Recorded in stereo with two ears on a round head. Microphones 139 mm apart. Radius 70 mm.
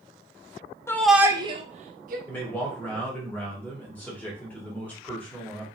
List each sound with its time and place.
0.9 s a shout: 15° left (ahead or behind), 0.6 m; by 2.2 s 60° right (ahead or behind), 1.1 m
2.3 s a man speaking: 10° left (ahead or behind), 1.7 m